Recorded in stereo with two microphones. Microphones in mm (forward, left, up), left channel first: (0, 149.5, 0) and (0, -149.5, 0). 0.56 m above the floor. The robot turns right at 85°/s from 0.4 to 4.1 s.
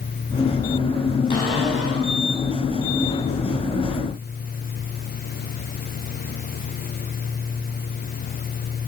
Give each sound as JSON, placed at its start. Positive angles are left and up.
{"t": 1.3, "sound": "a cupboard door", "azimuth_deg": 165, "distance_m": 4.5}